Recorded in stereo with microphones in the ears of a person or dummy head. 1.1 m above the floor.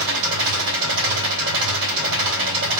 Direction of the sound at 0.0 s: 65° right (ahead or behind).